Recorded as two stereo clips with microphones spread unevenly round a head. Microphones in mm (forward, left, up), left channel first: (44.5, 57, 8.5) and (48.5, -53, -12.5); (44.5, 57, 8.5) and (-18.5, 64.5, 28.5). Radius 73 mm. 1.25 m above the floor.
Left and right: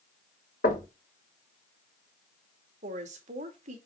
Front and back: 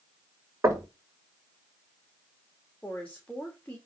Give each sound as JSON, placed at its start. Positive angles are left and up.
{"t": 0.6, "sound": "knocking", "azimuth_deg": 125, "distance_m": 2.0}
{"t": 2.8, "sound": "a woman speaking", "azimuth_deg": -85, "distance_m": 2.5}